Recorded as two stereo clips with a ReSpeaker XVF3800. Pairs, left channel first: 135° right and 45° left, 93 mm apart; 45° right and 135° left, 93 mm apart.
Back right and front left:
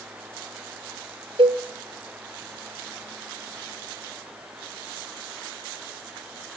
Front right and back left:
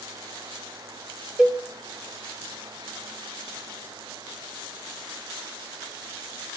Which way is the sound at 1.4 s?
50° left.